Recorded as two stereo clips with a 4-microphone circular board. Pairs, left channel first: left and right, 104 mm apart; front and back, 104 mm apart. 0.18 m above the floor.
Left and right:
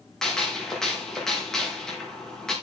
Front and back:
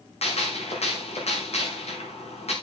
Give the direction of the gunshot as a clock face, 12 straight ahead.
12 o'clock.